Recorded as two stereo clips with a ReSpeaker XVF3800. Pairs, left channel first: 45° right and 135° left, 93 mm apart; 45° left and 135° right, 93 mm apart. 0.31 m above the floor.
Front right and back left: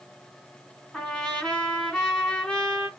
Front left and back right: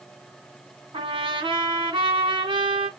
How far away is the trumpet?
About 3 m.